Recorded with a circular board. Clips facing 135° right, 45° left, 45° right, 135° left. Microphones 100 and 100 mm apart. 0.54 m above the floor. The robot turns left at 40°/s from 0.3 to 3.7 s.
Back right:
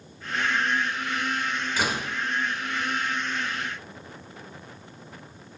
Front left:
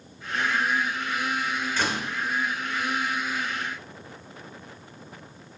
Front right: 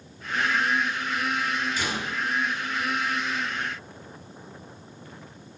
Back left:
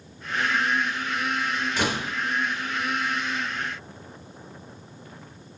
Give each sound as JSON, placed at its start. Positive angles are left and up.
{"t": 1.8, "sound": "a door slam", "azimuth_deg": 145, "distance_m": 1.3}